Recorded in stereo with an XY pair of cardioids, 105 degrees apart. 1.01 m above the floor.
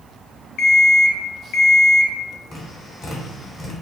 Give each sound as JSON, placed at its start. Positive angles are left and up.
{"t": 0.6, "sound": "an alarm clock", "azimuth_deg": 70, "distance_m": 0.5}
{"t": 2.5, "sound": "tapping", "azimuth_deg": 35, "distance_m": 1.2}